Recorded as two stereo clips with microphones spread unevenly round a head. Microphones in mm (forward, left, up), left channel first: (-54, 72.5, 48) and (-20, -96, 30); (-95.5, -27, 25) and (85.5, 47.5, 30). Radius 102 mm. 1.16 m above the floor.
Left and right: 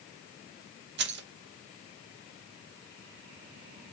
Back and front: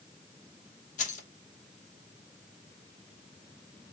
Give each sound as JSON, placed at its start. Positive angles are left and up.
{"t": 1.0, "sound": "keys jangling", "azimuth_deg": -100, "distance_m": 0.8}